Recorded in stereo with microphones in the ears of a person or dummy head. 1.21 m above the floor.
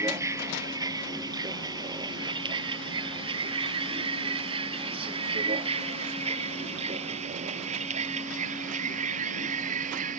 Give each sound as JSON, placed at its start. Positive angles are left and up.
{"t": 0.0, "sound": "a vehicle", "side_deg": -15}